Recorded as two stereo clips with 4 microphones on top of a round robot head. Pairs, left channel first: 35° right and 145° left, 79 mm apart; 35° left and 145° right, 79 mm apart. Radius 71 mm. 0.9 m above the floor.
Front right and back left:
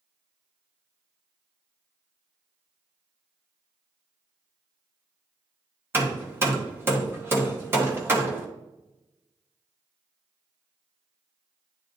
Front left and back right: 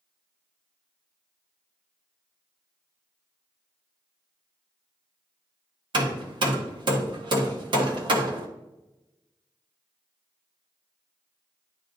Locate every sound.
5.9 s hammering: 155° right, 1.4 m